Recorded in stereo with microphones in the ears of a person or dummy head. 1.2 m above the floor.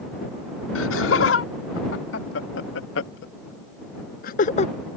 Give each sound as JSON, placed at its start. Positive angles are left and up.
{"t": 0.8, "sound": "laughter", "side_deg": 80}